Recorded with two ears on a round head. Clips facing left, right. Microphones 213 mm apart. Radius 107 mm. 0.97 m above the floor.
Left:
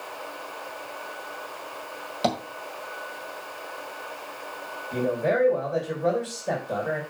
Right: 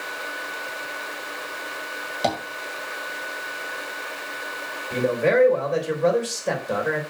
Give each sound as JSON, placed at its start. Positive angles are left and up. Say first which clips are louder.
{"t": 2.2, "sound": "tapping", "louder": "right 1 dB", "side_deg": 5, "distance_m": 1.7}
{"t": 4.9, "sound": "a man speaking", "louder": "right 4 dB", "side_deg": -85, "distance_m": 3.0}